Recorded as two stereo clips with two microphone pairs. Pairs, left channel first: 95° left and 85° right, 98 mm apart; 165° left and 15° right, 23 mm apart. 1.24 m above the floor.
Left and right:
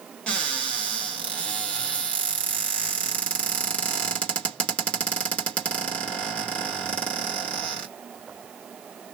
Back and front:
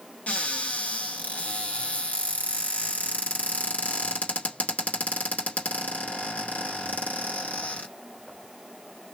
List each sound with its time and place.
0.3 s a cupboard door: 175° left, 1.9 m